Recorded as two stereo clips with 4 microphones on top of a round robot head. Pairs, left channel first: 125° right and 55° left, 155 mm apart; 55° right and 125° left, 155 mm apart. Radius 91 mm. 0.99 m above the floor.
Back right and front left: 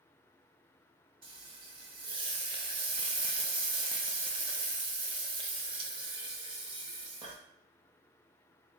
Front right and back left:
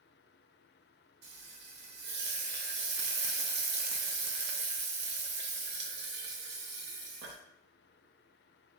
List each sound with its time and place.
1.2 s frying: 115° left, 0.8 m